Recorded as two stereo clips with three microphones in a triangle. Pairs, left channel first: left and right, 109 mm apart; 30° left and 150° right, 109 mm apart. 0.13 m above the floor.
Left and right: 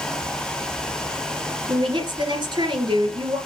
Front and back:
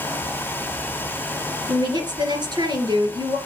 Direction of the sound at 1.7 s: 115° right.